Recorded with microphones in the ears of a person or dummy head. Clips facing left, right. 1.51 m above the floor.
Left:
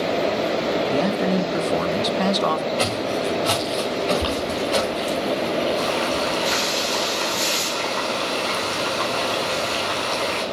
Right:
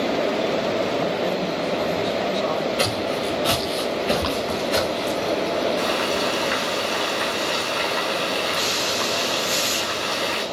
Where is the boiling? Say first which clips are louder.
Even; 15° left (ahead or behind), 9.5 m.